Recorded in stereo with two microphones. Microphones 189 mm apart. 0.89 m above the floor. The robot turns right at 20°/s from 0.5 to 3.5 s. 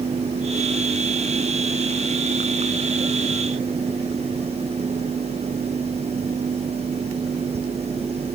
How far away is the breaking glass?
I don't hear breaking glass.